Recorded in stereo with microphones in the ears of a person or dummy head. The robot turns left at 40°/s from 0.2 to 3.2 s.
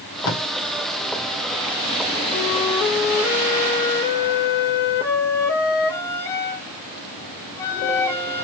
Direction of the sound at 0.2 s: 85° left.